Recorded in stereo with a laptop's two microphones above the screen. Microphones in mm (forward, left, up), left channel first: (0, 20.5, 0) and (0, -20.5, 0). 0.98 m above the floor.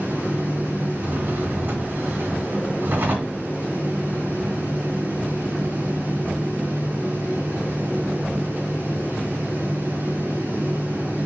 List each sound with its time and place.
0.0 s a fan: 65° right (ahead or behind), 3.5 m
1.0 s a drawer: 60° right (ahead or behind), 2 m